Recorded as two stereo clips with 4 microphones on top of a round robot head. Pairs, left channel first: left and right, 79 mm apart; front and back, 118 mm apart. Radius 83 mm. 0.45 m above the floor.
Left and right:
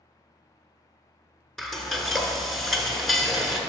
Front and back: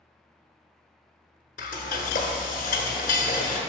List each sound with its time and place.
1.6 s frying: straight ahead, 1.1 m